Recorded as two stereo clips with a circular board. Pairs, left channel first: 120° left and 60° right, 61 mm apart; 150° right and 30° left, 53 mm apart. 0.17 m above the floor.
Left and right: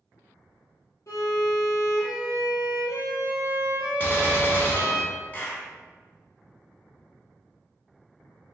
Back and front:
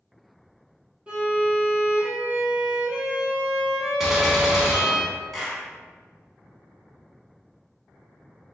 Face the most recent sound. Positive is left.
turn(degrees=115)